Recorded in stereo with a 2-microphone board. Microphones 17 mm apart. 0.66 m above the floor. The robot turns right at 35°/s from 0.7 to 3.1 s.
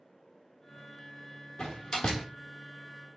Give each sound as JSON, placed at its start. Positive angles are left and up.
{"t": 1.6, "sound": "a door slam", "side_deg": 50, "distance_m": 1.2}